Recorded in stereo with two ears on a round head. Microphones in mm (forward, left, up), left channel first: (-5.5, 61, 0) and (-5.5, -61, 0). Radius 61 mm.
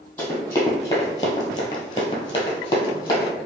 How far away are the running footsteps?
About 1.9 m.